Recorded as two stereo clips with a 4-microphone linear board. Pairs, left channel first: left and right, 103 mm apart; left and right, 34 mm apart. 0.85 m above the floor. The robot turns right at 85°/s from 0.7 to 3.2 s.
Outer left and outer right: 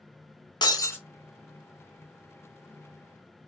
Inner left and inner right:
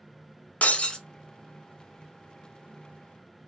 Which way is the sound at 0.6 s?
45° left (ahead or behind).